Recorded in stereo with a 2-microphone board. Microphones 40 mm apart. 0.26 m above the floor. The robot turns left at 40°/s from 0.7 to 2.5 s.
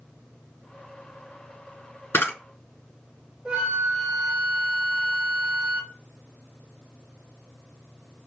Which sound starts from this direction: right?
A flute, at 3.5 s.